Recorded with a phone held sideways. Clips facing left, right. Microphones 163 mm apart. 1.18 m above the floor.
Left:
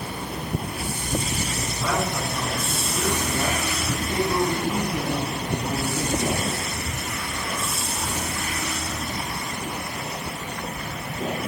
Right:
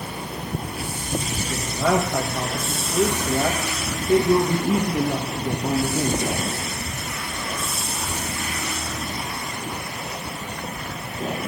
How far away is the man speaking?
About 1.7 m.